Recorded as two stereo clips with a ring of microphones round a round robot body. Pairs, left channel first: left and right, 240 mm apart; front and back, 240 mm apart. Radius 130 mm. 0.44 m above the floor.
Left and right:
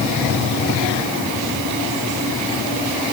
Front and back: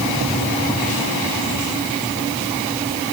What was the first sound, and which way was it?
Only background noise.